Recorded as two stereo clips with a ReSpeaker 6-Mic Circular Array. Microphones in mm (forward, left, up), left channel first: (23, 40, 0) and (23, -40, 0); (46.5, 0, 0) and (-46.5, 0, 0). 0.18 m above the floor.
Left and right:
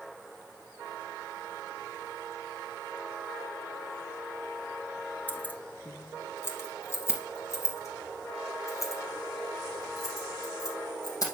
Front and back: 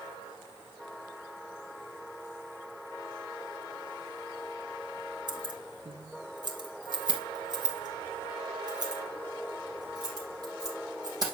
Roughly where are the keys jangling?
Behind left.